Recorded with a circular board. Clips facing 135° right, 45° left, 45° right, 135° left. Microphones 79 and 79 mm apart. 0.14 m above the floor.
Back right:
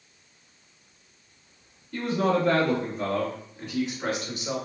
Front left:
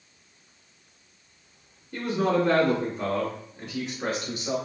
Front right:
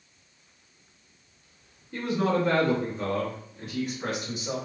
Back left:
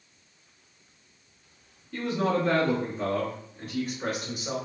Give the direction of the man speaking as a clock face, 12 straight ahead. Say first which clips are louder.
Even, front right 1 dB; 12 o'clock.